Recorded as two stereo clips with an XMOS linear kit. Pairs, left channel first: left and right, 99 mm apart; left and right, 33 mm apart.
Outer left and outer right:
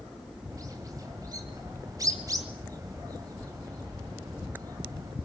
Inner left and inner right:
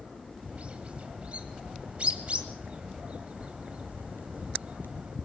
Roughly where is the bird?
Right.